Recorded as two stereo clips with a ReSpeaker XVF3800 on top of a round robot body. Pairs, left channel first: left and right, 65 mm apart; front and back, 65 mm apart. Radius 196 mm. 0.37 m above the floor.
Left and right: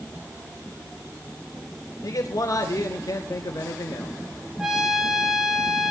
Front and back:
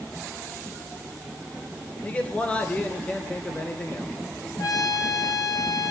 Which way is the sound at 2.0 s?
65° left.